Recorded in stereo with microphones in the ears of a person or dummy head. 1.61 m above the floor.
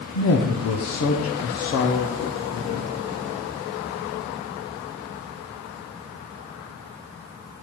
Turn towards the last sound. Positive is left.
turn(degrees=75)  # may be behind; listen again after turning